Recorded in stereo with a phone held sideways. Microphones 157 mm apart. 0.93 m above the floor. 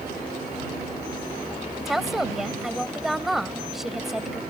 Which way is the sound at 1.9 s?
Centre (ahead or behind).